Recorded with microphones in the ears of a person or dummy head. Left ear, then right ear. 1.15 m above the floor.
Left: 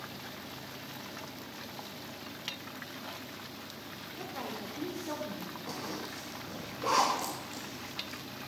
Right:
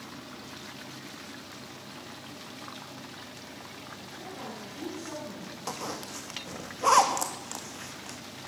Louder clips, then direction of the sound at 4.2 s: Left 2 dB; 20° left (ahead or behind).